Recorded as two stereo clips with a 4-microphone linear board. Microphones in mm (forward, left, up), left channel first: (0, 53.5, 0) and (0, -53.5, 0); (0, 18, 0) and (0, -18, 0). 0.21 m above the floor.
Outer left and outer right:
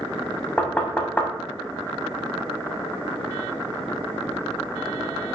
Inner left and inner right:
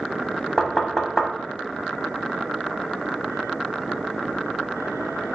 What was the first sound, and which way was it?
Knocking, 15° left (ahead or behind).